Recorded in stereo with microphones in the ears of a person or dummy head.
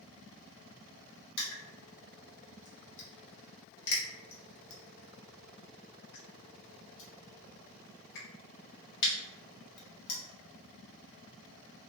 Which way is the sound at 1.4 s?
65° left (ahead or behind).